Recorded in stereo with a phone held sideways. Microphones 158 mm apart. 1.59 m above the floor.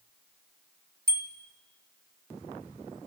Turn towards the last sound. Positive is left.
turn(degrees=-70)  # may be behind; listen again after turning